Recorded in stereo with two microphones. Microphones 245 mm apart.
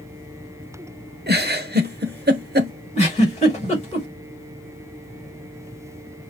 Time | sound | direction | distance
1.3 | a giggle | 40° right (ahead or behind) | 1.0 m
3.0 | a giggle | 25° left (ahead or behind) | 4.5 m